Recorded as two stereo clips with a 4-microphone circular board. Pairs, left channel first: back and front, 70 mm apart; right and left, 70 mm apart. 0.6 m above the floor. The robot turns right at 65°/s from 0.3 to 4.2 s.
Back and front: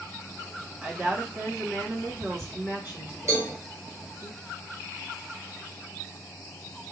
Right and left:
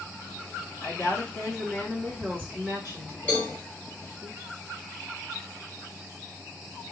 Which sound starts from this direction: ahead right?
A cowbell, at 3.3 s.